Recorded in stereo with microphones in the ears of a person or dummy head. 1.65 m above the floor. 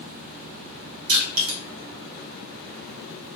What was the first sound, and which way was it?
Crushing, 75° right (ahead or behind).